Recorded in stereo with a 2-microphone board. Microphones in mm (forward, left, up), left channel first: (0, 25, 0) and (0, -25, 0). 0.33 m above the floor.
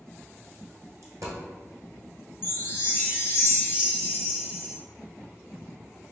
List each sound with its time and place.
1.0 s a dropped coin: 75° right (ahead or behind), 1.5 m
2.4 s a chime: 50° left (ahead or behind), 0.5 m